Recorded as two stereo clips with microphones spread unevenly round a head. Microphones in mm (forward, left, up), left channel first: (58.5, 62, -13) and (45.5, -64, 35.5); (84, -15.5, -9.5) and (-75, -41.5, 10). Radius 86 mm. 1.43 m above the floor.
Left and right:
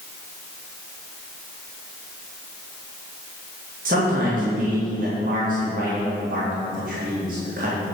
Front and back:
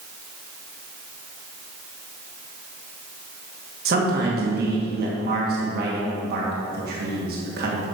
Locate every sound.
3.9 s a man speaking: 145° right, 2 m